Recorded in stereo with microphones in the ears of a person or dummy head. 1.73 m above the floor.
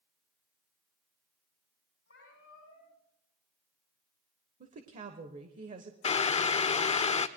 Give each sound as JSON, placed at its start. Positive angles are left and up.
{"t": 2.1, "sound": "a cat meowing", "side_deg": 60, "distance_m": 8.5}
{"t": 4.6, "sound": "a woman speaking", "side_deg": -40, "distance_m": 1.0}
{"t": 6.0, "sound": "boiling", "side_deg": 35, "distance_m": 0.5}